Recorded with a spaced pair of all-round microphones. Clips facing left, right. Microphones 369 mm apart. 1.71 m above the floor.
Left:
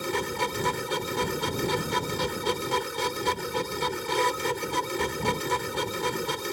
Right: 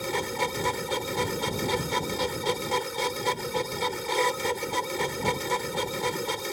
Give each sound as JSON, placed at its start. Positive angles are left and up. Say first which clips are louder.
{"t": 0.0, "sound": "a machine running", "louder": "even", "side_deg": 20}